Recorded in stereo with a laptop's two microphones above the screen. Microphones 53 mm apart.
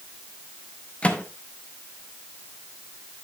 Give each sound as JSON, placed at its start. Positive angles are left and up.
{"t": 1.0, "sound": "a microwave", "side_deg": 20, "distance_m": 0.8}